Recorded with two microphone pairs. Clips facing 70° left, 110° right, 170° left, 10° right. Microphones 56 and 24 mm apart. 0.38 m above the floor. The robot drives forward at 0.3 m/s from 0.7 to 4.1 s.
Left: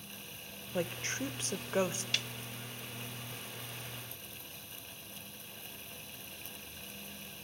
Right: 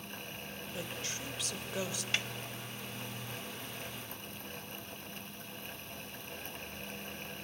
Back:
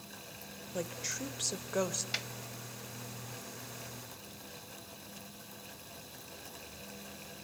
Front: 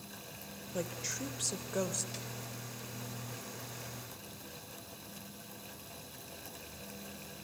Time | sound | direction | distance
0.7 | a woman speaking | 85° left | 1.2 m
2.1 | a snare drum | 170° right | 0.6 m